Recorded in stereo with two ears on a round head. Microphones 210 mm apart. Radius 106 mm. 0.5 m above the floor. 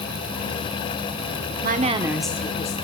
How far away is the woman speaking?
About 1.2 m.